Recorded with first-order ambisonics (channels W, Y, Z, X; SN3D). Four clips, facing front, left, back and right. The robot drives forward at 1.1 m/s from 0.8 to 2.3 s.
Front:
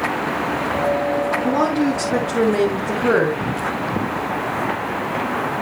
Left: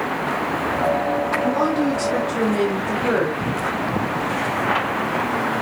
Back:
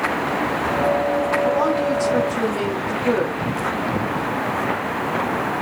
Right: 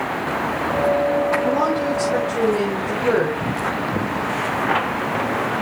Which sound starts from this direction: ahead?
A woman speaking, at 1.4 s.